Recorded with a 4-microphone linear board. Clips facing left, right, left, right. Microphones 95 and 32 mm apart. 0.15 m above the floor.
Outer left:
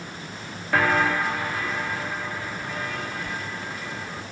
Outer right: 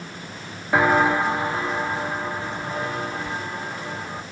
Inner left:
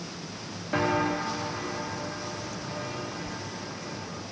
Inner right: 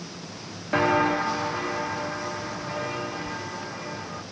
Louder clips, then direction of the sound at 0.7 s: Outer right 4 dB, inner right 5 dB; 20° right (ahead or behind).